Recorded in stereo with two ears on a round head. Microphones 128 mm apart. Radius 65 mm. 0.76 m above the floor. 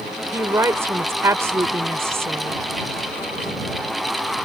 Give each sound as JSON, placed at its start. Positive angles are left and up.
{"t": 0.3, "sound": "a woman speaking", "side_deg": -20}